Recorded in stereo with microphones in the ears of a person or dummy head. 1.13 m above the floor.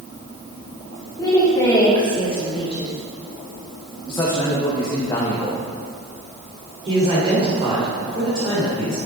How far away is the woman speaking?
About 3 m.